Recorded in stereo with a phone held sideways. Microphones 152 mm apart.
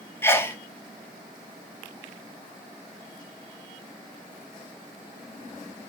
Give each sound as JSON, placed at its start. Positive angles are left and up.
{"t": 0.2, "sound": "a sneeze", "side_deg": 15, "distance_m": 0.6}